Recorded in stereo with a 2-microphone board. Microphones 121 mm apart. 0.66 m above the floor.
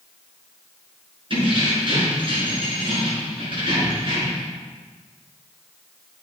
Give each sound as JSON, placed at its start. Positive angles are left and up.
{"t": 1.3, "sound": "keys jangling", "side_deg": -45, "distance_m": 5.0}